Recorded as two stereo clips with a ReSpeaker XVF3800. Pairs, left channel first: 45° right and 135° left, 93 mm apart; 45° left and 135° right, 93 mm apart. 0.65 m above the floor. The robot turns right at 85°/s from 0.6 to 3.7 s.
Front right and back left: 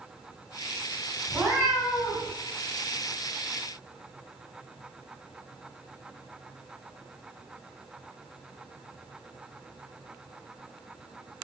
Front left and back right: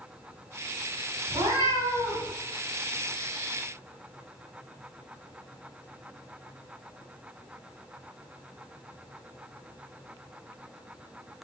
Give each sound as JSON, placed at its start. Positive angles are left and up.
{"t": 1.3, "sound": "a cat meowing", "azimuth_deg": -140, "distance_m": 1.1}